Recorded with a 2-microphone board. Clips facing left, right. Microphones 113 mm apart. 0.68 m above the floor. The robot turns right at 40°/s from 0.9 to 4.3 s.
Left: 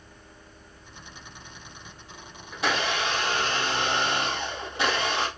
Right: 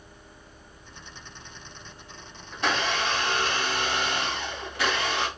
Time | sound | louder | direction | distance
2.5 | a blender | even | 5° left (ahead or behind) | 1.1 m